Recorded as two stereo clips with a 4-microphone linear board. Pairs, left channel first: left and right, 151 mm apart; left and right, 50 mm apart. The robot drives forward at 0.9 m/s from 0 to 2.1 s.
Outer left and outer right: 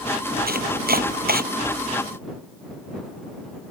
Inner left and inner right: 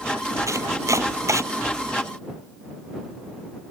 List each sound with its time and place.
0.5 s chopping: 85° right